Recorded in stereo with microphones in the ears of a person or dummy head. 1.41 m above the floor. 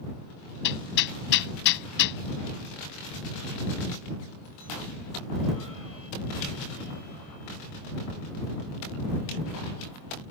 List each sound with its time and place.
0.6 s hammering: 65° left (ahead or behind)